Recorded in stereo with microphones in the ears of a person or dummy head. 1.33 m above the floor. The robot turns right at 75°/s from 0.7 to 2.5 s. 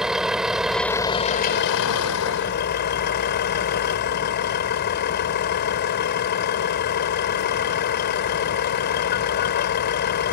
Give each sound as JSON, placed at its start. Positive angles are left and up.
{"t": 0.0, "sound": "a vehicle", "azimuth_deg": -10}